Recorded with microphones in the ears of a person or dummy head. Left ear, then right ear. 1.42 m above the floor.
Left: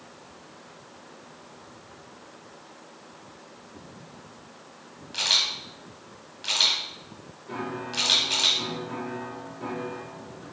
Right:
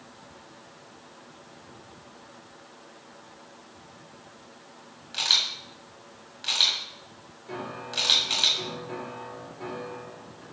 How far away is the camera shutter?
About 1.7 m.